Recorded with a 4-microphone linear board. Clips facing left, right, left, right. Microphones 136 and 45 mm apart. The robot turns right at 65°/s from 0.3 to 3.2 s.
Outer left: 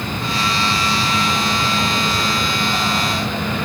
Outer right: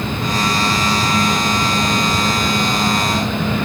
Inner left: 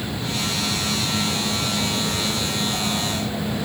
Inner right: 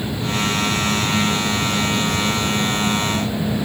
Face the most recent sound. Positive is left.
No sound to turn to.